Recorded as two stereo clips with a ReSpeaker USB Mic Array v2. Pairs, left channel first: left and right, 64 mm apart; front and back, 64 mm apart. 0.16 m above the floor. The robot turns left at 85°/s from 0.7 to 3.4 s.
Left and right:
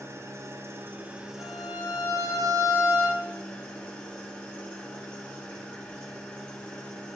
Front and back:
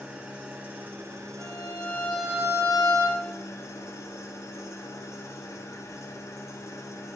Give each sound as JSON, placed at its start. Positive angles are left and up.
{"t": 0.0, "sound": "an engine running", "azimuth_deg": -110, "distance_m": 1.1}
{"t": 1.4, "sound": "a violin", "azimuth_deg": -30, "distance_m": 2.5}